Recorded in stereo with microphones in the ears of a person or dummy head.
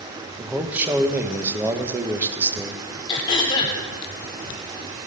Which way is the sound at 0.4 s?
10° right (ahead or behind).